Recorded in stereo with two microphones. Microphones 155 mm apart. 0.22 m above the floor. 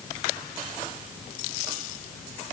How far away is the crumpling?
No crumpling in this recording.